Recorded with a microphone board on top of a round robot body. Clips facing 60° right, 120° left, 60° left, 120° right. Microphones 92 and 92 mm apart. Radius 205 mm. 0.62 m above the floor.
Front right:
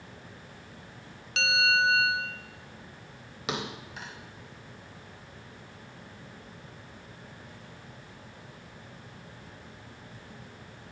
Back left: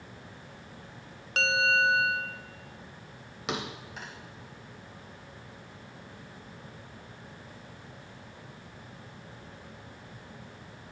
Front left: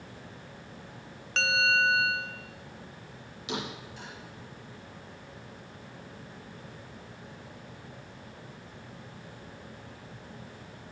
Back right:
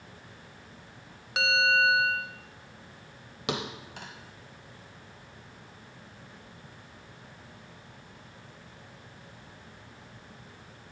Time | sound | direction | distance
1.4 | a bell | 160° left | 0.9 m
3.5 | a thud | 150° right | 0.8 m